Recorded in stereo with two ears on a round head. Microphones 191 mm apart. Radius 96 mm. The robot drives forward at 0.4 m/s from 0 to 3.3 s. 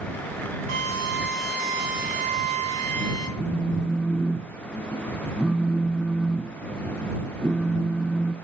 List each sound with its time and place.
0.7 s a drill: 85° right, 8 m; by 3.3 s 80° right, 8 m
3.4 s a phone buzzing: centre (ahead or behind), 0.7 m